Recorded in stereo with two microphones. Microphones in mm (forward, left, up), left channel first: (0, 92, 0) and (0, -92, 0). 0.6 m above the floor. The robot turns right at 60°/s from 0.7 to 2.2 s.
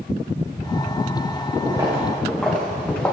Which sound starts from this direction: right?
Footsteps, at 1.6 s.